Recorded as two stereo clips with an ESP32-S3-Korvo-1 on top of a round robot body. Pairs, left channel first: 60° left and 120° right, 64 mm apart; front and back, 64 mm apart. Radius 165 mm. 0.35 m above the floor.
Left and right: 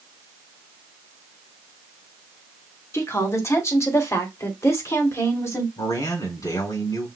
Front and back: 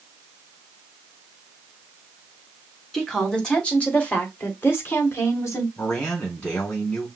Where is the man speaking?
65° left, 4 m.